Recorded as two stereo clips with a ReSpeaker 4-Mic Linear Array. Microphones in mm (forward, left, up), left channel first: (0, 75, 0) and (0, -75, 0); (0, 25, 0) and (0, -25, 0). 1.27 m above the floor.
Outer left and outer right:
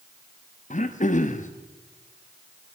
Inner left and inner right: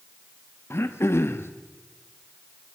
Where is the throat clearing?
55° left (ahead or behind), 0.9 m.